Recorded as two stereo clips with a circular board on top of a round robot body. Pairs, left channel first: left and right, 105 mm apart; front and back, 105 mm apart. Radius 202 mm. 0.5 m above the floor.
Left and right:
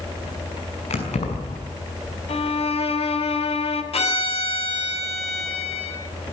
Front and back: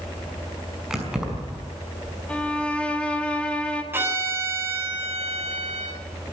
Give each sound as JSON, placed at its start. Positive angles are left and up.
{"t": 0.9, "sound": "keys jangling", "azimuth_deg": 95, "distance_m": 5.5}
{"t": 2.3, "sound": "a violin", "azimuth_deg": 80, "distance_m": 2.5}
{"t": 3.9, "sound": "a violin", "azimuth_deg": 110, "distance_m": 6.5}